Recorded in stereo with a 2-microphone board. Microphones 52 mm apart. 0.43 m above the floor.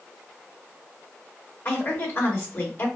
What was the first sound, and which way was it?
A woman speaking, 45° left (ahead or behind).